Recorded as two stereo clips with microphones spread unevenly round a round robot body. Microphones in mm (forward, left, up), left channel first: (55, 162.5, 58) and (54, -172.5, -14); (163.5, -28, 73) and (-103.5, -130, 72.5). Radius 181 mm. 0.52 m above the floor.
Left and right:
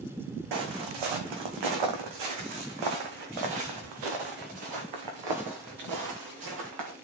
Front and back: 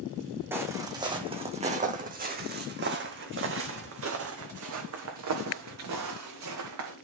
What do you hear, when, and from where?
0.5 s footsteps: 75° right, 2.5 m; by 6.9 s 135° right, 4.5 m